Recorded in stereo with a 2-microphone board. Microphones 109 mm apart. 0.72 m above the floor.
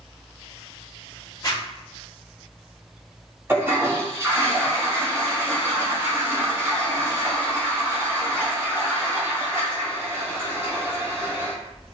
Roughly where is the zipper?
Left.